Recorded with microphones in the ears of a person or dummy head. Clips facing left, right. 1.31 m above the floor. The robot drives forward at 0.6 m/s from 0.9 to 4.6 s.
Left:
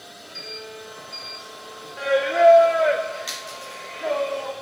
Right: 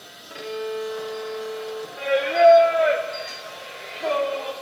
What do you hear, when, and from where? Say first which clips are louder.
0.3 s a violin: right 11 dB; 65° right (ahead or behind), 0.7 m; by 1.9 s 50° right (ahead or behind), 0.9 m
2.0 s singing: even; 5° left (ahead or behind), 0.6 m; by 4.5 s centre (ahead or behind), 2 m